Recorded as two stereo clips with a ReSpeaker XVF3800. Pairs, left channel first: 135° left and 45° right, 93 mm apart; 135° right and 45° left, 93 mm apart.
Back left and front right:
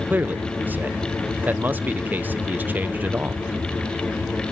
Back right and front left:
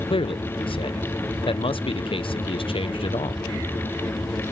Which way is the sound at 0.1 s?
115° right.